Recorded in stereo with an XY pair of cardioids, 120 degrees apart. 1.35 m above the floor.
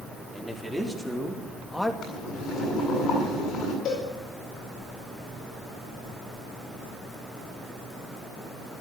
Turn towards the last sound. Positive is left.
turn(degrees=70)